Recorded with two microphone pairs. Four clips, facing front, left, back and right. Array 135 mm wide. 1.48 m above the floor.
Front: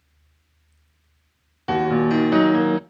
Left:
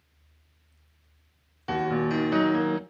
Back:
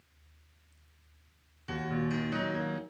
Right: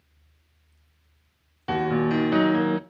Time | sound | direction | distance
1.7 | a piano | 5° right | 0.5 m